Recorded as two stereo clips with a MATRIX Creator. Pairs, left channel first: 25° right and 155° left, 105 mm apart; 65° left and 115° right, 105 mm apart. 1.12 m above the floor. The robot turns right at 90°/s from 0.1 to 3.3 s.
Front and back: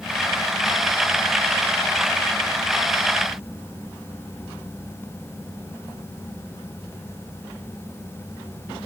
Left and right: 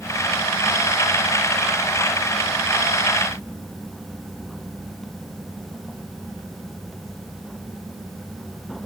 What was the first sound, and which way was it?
Only background noise.